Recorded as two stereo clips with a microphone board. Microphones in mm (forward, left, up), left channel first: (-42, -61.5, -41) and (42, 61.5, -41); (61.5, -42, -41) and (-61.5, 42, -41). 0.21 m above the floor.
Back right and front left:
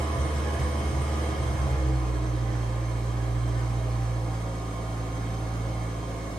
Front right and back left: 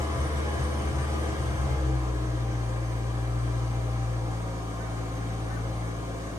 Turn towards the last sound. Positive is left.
turn(degrees=160)